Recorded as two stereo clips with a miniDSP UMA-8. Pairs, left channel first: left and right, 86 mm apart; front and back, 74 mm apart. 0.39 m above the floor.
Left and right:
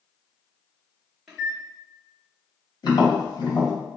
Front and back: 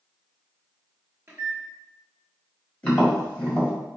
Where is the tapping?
70° left, 1.3 m.